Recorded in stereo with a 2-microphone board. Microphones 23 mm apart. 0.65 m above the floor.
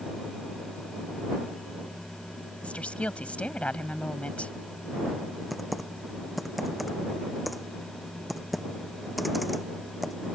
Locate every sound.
2.6 s a woman speaking: 80° left
5.5 s typing on a keyboard: centre (ahead or behind)